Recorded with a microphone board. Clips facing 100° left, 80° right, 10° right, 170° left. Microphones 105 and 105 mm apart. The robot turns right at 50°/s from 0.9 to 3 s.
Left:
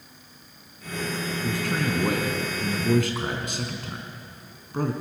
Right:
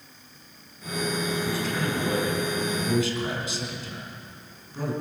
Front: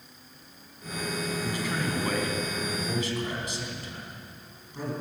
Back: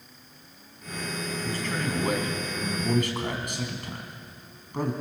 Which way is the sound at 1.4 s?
55° left.